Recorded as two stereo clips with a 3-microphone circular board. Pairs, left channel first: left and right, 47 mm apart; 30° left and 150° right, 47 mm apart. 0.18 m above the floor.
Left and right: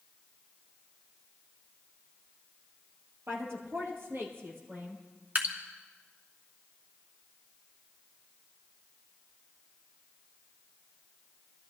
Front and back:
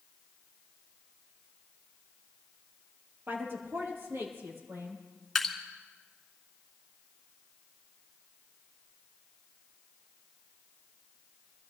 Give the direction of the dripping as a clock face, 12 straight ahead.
2 o'clock.